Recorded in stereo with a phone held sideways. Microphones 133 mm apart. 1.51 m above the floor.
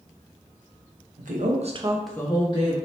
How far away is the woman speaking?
About 1.1 m.